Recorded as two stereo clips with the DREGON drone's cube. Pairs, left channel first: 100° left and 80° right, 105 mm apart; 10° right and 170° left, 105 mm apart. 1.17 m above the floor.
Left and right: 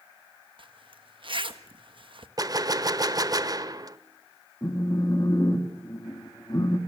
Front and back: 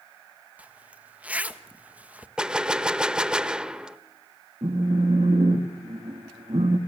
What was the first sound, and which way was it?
A zipper, 115° right.